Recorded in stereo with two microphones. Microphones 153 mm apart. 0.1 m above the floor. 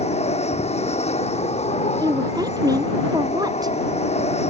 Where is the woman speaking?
25° right (ahead or behind).